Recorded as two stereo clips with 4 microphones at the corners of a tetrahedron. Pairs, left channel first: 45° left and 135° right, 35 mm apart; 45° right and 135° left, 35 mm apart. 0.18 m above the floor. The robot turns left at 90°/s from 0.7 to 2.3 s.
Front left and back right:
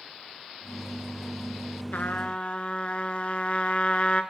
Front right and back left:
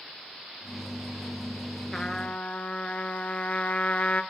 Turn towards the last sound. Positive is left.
turn(degrees=0)